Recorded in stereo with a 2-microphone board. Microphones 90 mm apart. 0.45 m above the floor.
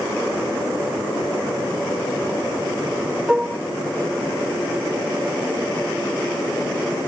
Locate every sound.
3.3 s dishes clattering: 10° right (ahead or behind)